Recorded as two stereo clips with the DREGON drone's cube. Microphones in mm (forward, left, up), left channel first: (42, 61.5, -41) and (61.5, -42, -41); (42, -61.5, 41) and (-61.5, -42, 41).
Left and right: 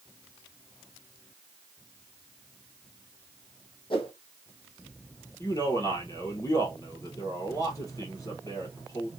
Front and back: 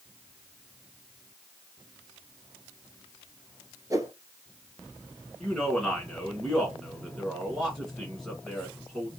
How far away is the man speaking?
About 1.9 m.